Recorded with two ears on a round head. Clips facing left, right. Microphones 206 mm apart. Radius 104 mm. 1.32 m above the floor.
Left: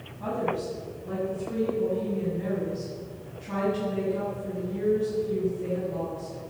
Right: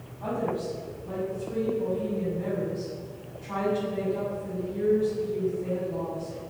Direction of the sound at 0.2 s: 40° left (ahead or behind).